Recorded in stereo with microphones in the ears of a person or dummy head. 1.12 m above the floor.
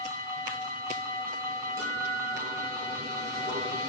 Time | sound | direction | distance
1.8 | a guitar | 75° right (ahead or behind) | 7.5 m